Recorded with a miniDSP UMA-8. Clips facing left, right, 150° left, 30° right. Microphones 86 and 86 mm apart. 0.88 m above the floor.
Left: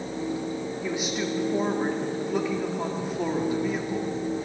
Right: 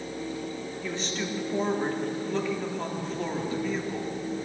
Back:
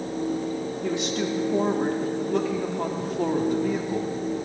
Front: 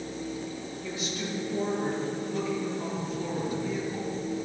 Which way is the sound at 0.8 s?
170° left.